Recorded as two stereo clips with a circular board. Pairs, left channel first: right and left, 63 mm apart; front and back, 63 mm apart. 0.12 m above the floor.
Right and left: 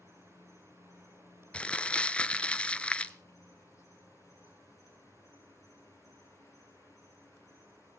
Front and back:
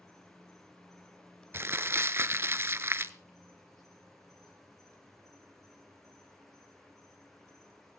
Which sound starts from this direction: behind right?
Crumpling, at 1.5 s.